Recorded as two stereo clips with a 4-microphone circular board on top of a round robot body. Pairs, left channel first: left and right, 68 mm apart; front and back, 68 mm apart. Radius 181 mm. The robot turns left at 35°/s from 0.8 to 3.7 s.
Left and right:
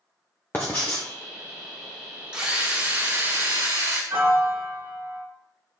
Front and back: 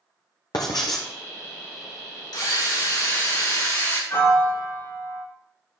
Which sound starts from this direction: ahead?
A drill, at 2.3 s.